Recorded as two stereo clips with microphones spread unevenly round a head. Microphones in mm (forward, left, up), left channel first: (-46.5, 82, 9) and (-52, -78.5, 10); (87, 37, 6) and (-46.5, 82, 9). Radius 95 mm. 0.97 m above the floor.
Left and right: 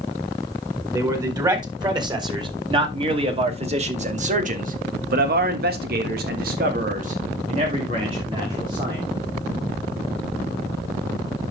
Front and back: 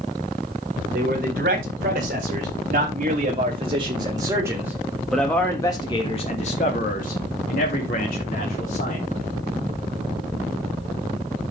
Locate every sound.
0.9 s a man speaking: 160° right, 4 m; by 9.1 s 25° right, 3 m